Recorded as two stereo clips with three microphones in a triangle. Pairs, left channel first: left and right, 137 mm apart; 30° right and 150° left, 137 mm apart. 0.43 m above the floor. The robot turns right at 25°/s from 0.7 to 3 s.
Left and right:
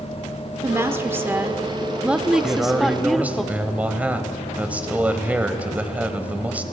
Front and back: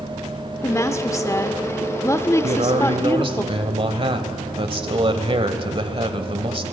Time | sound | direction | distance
0.6 | a woman speaking | 55° right | 0.8 m
2.4 | a man speaking | straight behind | 1.7 m